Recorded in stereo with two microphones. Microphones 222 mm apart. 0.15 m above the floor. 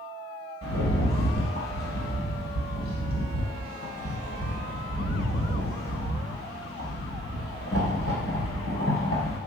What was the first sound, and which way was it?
A rattle, 65° left (ahead or behind).